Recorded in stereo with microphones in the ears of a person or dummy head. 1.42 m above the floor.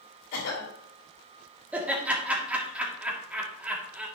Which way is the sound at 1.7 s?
10° right (ahead or behind).